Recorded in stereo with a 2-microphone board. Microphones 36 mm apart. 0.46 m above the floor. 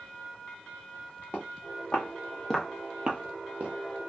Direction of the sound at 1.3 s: 45° left (ahead or behind).